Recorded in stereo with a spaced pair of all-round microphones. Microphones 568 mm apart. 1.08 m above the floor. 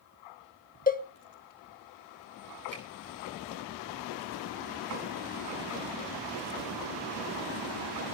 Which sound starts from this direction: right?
A finger snap, at 2.7 s.